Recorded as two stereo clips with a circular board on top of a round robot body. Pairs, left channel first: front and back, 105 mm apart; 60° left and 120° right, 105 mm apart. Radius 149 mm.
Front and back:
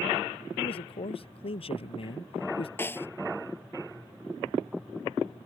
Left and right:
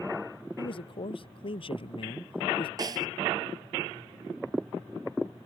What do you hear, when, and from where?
0.6 s a man speaking: 30° left
2.8 s a snare drum: 70° right